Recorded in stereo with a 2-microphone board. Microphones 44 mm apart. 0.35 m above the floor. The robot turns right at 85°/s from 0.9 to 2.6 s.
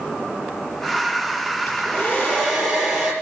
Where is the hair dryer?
100° left, 6.5 m; by 3.1 s straight behind, 6.5 m.